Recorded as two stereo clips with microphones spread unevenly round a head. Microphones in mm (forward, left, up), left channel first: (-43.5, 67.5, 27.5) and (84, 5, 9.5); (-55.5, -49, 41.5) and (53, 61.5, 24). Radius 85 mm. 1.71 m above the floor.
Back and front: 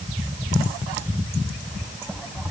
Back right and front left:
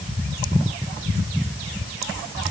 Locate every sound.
Only background noise.